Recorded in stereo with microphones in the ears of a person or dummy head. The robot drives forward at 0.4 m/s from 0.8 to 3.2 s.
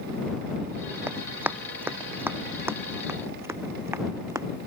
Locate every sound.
1.1 s running footsteps: 10° right (ahead or behind)